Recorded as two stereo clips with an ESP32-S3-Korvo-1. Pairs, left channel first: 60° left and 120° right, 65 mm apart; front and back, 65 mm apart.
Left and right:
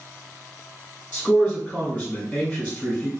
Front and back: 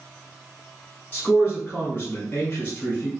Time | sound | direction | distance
1.1 | a man speaking | 35° left | 1.2 m